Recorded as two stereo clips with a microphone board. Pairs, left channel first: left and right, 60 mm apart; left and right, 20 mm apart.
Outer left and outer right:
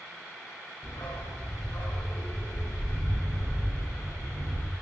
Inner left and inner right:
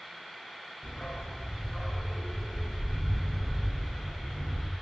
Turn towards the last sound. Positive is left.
turn(degrees=80)